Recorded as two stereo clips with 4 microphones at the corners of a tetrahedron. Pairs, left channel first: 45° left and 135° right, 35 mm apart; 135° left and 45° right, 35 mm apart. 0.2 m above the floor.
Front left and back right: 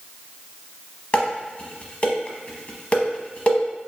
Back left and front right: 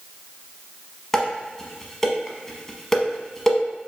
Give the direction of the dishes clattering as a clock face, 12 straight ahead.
10 o'clock.